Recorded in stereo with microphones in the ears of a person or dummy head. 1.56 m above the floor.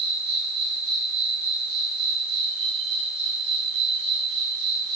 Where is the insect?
30° right (ahead or behind), 7 m.